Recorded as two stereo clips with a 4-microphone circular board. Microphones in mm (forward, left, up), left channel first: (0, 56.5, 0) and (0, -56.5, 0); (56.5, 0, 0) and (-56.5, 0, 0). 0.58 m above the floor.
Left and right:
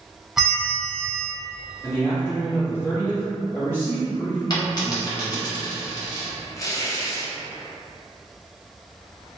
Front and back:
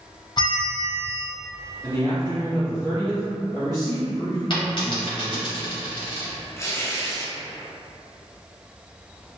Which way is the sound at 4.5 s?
40° left.